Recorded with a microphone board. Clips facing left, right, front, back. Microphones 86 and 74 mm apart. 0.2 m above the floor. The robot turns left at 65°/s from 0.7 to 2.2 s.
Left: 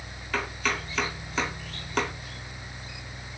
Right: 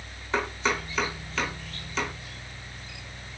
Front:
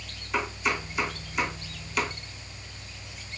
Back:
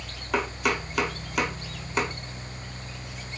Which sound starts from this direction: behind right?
Chopping, at 0.3 s.